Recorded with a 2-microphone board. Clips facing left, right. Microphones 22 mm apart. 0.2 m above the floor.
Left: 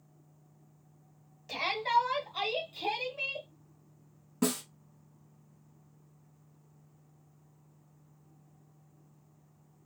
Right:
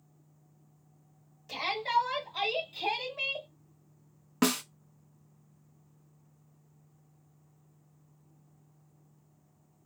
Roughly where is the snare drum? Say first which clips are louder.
Right 3 dB; right.